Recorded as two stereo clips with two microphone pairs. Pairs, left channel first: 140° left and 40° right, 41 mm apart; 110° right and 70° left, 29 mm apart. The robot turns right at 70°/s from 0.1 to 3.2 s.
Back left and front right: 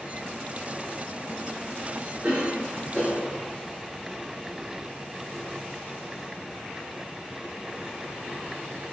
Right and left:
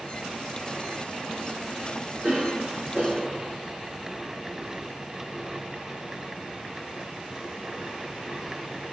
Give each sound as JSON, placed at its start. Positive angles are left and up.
{"t": 2.2, "sound": "a cough", "azimuth_deg": 25, "distance_m": 3.0}